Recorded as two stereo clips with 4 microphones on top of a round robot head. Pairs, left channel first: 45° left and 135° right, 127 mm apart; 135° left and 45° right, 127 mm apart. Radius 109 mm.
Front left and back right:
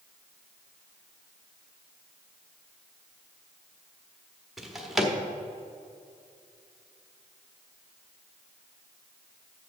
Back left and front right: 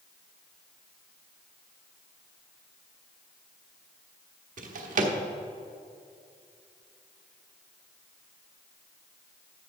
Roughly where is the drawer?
Ahead right.